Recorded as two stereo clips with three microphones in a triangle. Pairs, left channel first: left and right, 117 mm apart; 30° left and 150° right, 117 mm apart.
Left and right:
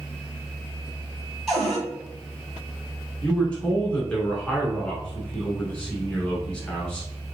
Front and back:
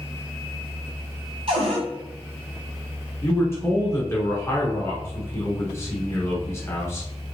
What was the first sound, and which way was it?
A cupboard door, straight behind.